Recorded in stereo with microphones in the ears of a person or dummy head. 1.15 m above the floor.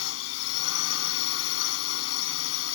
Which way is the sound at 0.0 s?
85° left.